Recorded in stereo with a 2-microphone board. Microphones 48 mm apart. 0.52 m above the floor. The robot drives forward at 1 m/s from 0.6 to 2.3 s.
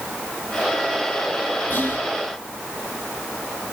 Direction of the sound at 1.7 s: 50° left (ahead or behind).